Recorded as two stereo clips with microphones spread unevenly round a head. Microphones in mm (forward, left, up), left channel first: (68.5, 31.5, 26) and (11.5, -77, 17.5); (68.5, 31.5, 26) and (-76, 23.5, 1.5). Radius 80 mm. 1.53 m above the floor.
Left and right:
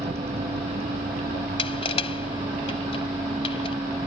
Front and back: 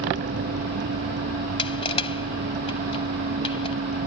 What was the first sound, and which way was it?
A vehicle, 175° right.